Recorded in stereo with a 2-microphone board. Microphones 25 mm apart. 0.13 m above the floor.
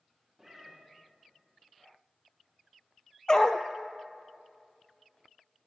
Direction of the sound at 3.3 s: 30° left (ahead or behind).